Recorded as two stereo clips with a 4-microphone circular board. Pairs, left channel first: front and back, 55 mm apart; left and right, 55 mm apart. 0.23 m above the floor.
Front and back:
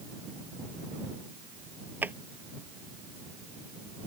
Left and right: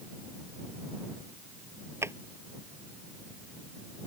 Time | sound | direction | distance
2.0 | a drawer | 125° right | ?